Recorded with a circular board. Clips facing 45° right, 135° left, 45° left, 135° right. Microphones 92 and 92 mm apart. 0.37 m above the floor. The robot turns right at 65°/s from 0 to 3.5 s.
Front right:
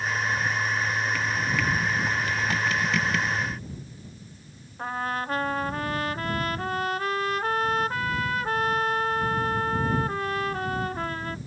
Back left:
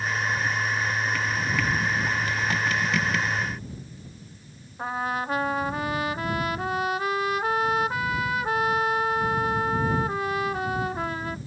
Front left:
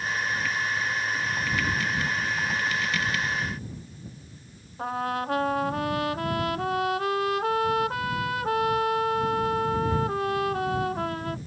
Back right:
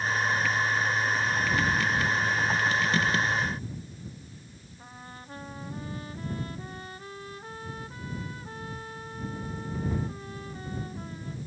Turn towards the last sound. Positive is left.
turn(degrees=55)